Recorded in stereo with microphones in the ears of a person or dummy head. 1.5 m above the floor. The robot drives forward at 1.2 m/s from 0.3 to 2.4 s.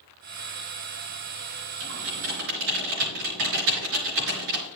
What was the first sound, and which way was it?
Typing on a keyboard, 70° right (ahead or behind).